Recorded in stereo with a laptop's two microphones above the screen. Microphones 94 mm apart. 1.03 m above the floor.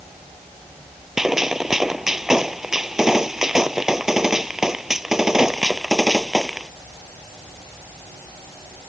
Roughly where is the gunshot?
Centre.